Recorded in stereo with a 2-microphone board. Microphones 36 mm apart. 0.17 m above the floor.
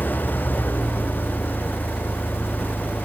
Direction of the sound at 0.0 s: 80° left.